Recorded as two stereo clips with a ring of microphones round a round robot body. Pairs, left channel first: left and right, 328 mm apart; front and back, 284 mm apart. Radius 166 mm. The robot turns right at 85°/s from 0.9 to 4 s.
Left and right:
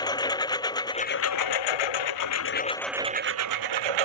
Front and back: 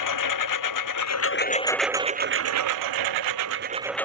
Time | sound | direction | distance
0.0 | a lawn mower | 10° left | ?